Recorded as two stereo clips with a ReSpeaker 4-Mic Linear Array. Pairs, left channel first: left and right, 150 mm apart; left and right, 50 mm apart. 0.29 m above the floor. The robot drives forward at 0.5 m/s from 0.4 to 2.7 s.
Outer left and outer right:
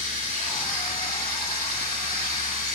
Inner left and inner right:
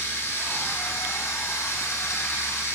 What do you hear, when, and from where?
0.0 s running water: 60° left (ahead or behind), 1.4 m; by 2.8 s 65° left (ahead or behind), 1.3 m